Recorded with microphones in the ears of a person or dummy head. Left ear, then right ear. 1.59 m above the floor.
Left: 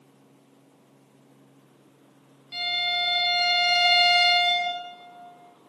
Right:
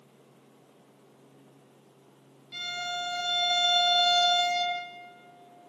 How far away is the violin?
About 1.3 m.